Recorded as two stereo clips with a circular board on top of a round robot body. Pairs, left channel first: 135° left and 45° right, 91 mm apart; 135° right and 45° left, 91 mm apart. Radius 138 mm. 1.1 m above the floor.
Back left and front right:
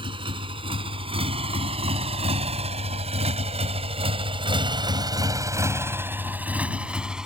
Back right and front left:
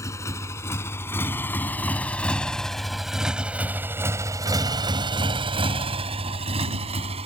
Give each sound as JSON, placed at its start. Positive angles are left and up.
{"t": 0.0, "sound": "a motorcycle", "azimuth_deg": -75}